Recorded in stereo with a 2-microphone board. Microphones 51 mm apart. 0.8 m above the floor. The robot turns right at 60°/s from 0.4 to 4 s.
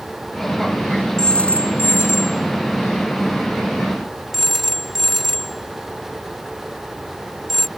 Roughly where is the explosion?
No explosion in this recording.